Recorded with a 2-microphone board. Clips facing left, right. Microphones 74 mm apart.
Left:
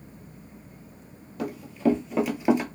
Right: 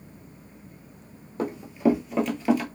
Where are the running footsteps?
30° right (ahead or behind), 0.8 m; by 2.7 s 25° left (ahead or behind), 0.7 m.